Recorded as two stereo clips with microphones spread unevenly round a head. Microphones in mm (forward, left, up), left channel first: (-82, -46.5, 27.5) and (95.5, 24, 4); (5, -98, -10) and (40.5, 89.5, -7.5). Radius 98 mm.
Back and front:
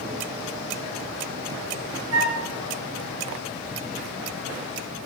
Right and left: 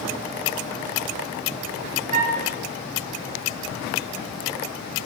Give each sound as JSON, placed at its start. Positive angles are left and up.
{"t": 2.1, "sound": "a flute", "azimuth_deg": 25, "distance_m": 5.5}